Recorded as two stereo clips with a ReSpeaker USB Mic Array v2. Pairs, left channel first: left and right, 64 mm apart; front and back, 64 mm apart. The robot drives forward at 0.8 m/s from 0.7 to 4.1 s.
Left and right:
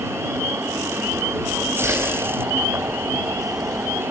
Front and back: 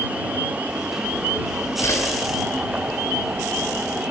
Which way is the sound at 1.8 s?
45° right.